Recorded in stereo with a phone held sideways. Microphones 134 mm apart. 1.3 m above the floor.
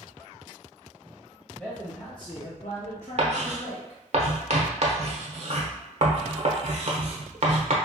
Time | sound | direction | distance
1.5 | a man speaking | 5° left (ahead or behind) | 0.8 m
3.2 | writing | 55° right (ahead or behind) | 0.6 m